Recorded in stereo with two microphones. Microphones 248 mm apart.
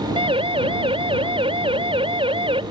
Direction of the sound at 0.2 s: 20° right (ahead or behind).